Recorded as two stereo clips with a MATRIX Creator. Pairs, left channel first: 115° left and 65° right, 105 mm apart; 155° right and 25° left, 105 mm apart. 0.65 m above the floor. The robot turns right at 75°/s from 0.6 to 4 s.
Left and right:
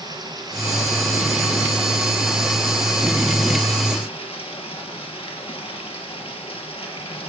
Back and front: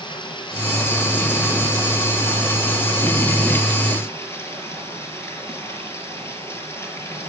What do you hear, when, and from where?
0.0 s running water: 120° right, 3 m; by 7.3 s 135° left, 3 m